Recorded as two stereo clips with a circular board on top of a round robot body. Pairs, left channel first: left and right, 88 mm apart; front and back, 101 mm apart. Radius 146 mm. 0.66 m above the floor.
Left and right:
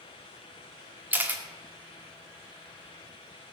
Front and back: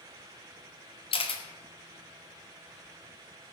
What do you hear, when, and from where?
1.1 s a camera shutter: 20° right, 2.5 m